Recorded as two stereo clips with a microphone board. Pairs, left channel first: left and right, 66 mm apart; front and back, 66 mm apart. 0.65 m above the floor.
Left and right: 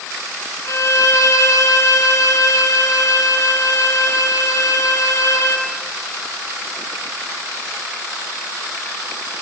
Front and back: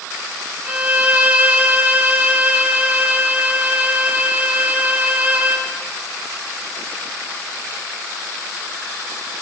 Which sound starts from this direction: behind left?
A violin, at 0.7 s.